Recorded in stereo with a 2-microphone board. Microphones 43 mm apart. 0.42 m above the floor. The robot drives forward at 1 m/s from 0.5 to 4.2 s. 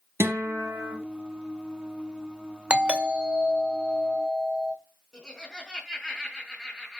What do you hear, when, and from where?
0.2 s a guitar: 75° right (ahead or behind), 3.5 m; by 0.9 s 80° right, 3.5 m
2.7 s a doorbell: 30° right (ahead or behind), 1.6 m; by 4.8 s 15° right (ahead or behind), 2.5 m
5.1 s laughter: 5° left (ahead or behind), 4 m